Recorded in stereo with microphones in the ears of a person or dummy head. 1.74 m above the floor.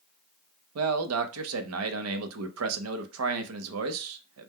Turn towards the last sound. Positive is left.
turn(degrees=-85)